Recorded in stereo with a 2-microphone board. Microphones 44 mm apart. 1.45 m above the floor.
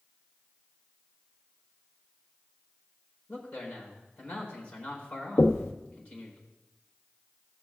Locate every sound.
3.3 s a man speaking: 30° left (ahead or behind), 4.5 m
5.4 s knocking: 70° left (ahead or behind), 0.8 m